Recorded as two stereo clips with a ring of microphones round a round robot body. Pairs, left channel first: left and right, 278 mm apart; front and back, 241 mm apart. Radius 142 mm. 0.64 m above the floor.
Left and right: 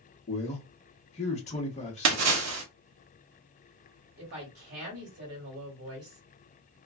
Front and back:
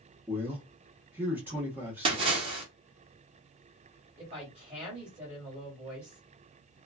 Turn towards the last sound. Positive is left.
turn(degrees=-100)